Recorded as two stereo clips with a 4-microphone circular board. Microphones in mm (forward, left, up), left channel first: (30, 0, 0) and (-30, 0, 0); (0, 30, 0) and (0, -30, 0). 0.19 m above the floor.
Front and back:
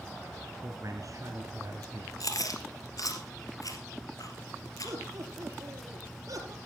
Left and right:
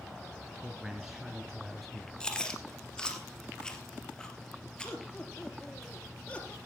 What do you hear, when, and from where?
0.6 s a man speaking: 165° right, 1.7 m; by 2.1 s 175° left, 3 m
2.2 s chewing: 15° left, 2.5 m
4.8 s laughter: 160° left, 4.5 m